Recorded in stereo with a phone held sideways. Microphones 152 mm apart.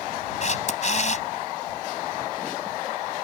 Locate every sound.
0.4 s a camera shutter: 50° left (ahead or behind)